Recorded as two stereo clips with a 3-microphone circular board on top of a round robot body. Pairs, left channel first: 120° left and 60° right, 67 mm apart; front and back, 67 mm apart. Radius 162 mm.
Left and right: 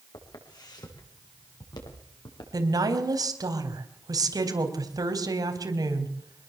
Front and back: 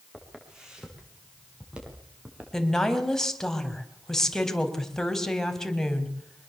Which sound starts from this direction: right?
A woman speaking, at 2.5 s.